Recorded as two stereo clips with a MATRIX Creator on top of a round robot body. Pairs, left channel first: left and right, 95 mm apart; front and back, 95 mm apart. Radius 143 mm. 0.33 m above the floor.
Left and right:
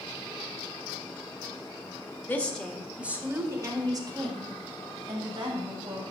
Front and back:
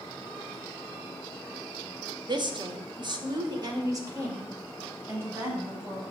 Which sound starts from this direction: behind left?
A woman speaking, at 2.3 s.